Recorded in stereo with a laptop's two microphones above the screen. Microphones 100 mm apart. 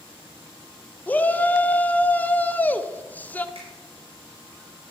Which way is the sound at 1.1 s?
15° left (ahead or behind).